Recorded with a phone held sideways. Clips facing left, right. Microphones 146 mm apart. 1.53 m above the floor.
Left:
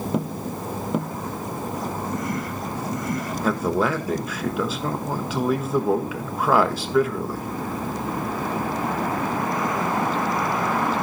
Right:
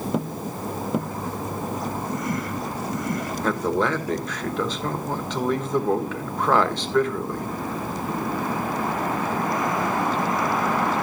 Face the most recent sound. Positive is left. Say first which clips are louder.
# left 1 dB
turn(degrees=5)  # may be behind; listen again after turning